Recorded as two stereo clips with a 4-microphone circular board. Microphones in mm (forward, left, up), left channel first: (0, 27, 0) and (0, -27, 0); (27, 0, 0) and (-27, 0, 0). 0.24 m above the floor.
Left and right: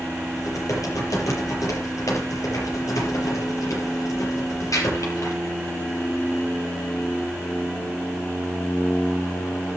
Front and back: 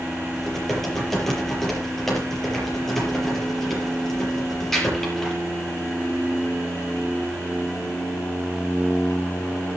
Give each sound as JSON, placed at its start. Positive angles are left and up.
{"t": 0.4, "sound": "typing on a keyboard", "azimuth_deg": 85, "distance_m": 6.0}